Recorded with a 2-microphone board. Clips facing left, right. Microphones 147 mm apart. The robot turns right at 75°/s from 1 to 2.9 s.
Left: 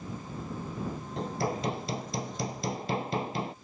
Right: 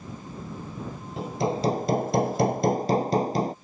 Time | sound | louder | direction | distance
1.2 | hammering | right 6 dB | 175° right | ?